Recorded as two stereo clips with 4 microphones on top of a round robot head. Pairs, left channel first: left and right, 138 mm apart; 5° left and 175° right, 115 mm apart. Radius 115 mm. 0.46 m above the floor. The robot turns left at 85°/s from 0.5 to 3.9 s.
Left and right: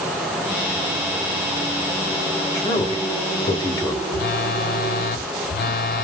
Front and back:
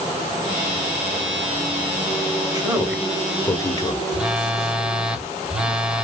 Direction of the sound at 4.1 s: 100° left.